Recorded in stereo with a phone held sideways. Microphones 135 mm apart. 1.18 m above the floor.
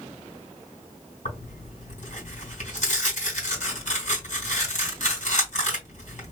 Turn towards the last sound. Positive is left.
turn(degrees=65)  # may be behind; listen again after turning